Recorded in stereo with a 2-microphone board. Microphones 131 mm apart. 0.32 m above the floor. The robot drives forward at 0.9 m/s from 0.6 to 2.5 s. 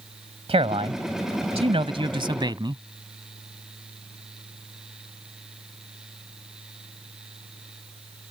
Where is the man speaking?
50° right (ahead or behind); by 2.8 s 35° right (ahead or behind).